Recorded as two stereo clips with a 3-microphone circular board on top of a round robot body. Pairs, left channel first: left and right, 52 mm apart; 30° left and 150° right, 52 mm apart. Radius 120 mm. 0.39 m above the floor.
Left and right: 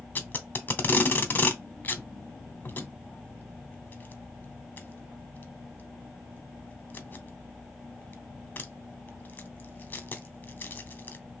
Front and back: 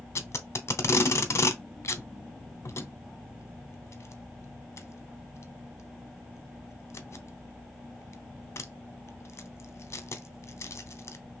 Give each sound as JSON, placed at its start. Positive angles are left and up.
{"t": 0.1, "sound": "tape being pulled", "azimuth_deg": 45, "distance_m": 0.7}